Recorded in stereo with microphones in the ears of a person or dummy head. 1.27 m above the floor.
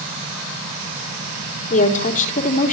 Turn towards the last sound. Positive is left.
turn(degrees=40)  # may be behind; listen again after turning